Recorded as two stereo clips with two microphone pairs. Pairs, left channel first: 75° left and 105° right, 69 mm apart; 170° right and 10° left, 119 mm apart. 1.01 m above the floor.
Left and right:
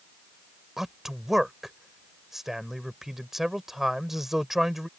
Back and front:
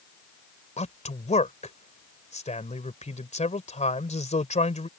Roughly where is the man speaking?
Behind.